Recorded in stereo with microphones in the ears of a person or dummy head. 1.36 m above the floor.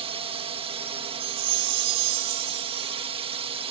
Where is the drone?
25° right (ahead or behind).